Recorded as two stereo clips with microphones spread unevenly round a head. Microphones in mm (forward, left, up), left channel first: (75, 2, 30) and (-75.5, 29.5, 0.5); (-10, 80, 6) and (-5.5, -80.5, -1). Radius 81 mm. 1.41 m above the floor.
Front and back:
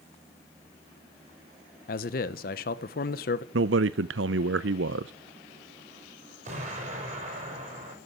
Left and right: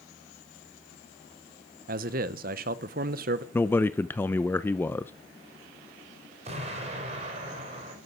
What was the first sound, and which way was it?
A man speaking, 50° right.